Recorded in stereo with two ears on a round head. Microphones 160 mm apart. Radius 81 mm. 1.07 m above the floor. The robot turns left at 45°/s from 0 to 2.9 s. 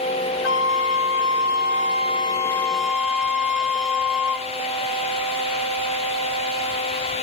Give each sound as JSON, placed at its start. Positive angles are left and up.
{"t": 0.4, "sound": "a flute", "azimuth_deg": 105, "distance_m": 0.8}